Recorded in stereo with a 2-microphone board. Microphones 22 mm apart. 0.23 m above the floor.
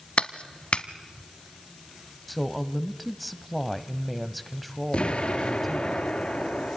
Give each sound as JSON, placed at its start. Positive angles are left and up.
{"t": 0.2, "sound": "a clap", "side_deg": 50, "distance_m": 1.1}
{"t": 2.3, "sound": "a woman speaking", "side_deg": 0, "distance_m": 1.0}
{"t": 4.9, "sound": "an explosion", "side_deg": 50, "distance_m": 2.5}